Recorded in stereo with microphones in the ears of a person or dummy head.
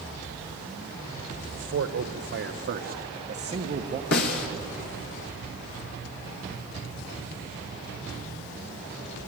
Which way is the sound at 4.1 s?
75° left (ahead or behind).